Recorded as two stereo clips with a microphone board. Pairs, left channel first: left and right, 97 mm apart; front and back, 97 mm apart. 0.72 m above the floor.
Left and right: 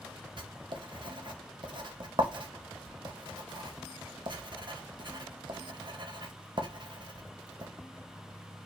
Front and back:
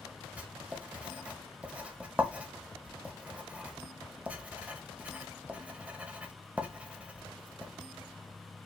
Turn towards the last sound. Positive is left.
turn(degrees=-105)